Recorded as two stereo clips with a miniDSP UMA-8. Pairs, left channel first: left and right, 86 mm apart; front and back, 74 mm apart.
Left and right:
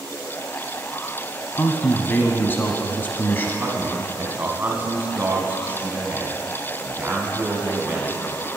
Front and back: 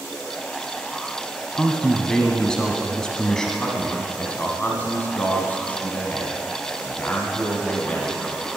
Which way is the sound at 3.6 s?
45° right.